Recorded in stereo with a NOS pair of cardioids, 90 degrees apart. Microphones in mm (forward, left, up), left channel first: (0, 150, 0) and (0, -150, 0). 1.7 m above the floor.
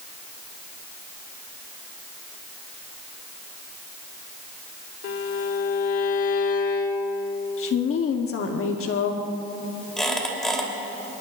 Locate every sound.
5.0 s a violin: 50° left, 1.2 m
7.6 s a woman speaking: 50° left, 1.1 m
10.0 s a squeak: straight ahead, 3 m